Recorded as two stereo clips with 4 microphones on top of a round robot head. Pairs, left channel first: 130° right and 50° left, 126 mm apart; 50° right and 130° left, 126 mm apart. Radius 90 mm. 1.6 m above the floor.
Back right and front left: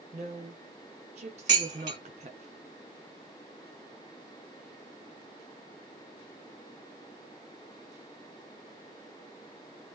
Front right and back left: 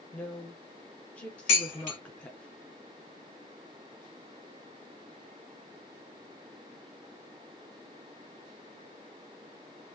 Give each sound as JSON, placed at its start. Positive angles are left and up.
{"t": 0.1, "sound": "a woman speaking", "azimuth_deg": 30, "distance_m": 0.5}
{"t": 1.5, "sound": "dishes clattering", "azimuth_deg": -10, "distance_m": 1.8}